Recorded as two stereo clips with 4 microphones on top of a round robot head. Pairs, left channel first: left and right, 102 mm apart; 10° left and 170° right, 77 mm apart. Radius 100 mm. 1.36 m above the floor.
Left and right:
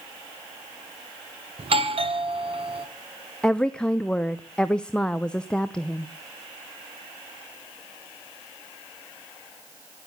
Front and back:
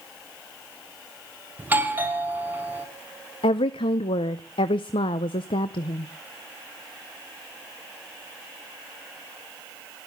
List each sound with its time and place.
1.6 s a doorbell: 105° right, 1.6 m
3.4 s a woman speaking: 10° left, 0.6 m